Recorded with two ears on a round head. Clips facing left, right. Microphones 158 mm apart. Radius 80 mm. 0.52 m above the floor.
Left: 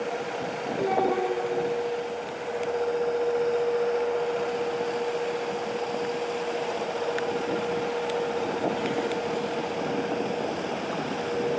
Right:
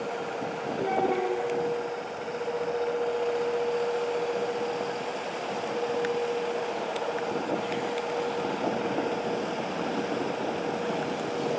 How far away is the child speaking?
About 4.5 m.